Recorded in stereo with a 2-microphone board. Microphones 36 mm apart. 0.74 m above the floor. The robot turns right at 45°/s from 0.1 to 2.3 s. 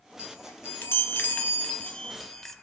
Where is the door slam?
I don't hear a door slam.